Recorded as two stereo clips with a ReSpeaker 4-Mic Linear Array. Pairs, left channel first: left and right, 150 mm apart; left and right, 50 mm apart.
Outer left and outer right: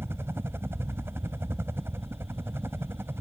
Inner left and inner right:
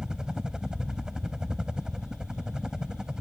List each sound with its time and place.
0.0 s a helicopter: 15° right (ahead or behind)